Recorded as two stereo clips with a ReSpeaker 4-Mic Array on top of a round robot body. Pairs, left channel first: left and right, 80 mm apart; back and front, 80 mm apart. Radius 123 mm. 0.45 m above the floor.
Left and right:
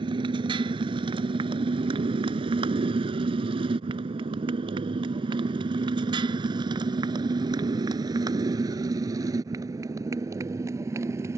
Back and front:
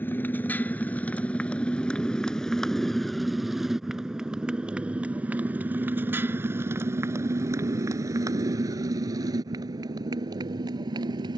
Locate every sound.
0.0 s a motorcycle: 115° right; by 11.4 s 35° right